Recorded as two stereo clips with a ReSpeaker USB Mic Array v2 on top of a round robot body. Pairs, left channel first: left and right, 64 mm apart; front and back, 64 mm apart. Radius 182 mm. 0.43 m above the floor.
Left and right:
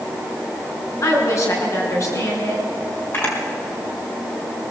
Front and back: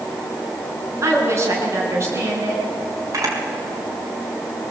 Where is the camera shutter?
140° left, 4.5 m.